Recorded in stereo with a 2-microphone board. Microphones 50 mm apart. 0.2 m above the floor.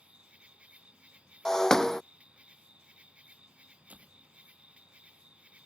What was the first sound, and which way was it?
An insect, 25° right (ahead or behind).